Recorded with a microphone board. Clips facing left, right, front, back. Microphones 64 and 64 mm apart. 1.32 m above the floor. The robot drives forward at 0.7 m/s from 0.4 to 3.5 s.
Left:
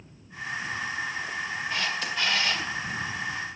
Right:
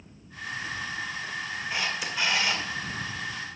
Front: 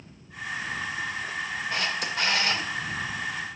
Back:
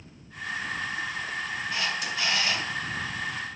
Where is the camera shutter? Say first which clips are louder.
Even, front 1 dB; 15° right, 2 m; by 2.6 s 20° right, 1.6 m.